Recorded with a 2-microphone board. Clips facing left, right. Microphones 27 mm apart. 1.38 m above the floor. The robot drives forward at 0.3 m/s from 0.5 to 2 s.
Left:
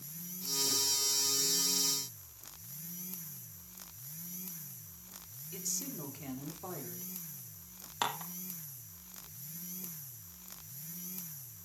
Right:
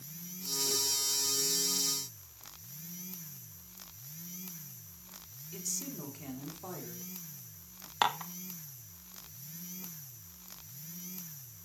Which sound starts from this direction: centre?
A woman speaking, at 5.5 s.